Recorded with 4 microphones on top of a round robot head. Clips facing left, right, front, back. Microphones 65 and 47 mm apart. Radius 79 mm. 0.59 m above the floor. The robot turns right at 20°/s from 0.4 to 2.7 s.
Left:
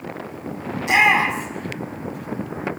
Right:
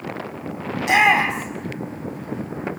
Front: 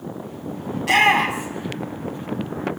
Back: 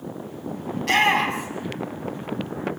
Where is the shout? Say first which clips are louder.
Even, front 3 dB; 85° right, 4.5 m; by 1.7 s 70° right, 4.5 m.